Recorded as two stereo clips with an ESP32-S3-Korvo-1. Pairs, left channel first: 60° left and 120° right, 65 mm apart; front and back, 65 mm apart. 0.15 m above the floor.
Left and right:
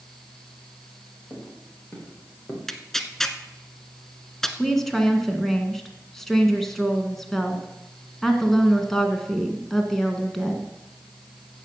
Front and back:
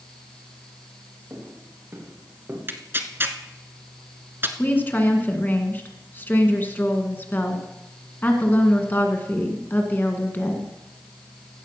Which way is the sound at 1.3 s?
125° left.